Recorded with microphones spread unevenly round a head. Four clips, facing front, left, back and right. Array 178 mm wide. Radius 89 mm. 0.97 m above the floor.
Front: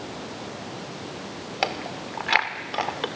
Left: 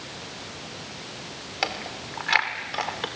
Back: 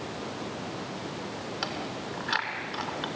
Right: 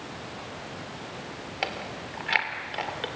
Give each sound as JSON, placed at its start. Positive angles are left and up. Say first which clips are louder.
{"t": 1.6, "sound": "chewing", "louder": "left 3 dB, front 9 dB", "azimuth_deg": 5, "distance_m": 1.8}